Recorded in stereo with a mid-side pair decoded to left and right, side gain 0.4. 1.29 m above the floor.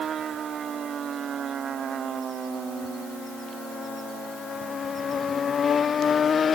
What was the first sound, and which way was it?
Only background noise.